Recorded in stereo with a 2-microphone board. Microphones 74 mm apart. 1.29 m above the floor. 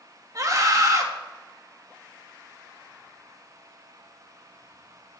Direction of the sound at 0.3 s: 45° right (ahead or behind).